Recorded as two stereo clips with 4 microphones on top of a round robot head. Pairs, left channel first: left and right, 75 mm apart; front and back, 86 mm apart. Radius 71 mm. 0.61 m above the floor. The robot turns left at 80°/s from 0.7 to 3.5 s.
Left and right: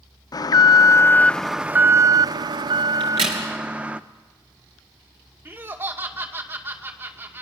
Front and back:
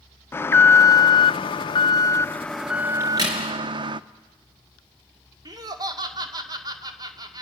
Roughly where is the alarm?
Ahead left.